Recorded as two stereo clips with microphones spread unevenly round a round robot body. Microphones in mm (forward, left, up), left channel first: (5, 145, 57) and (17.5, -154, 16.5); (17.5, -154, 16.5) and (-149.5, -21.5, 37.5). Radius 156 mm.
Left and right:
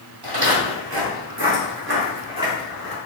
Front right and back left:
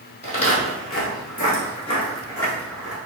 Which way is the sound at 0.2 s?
80° right.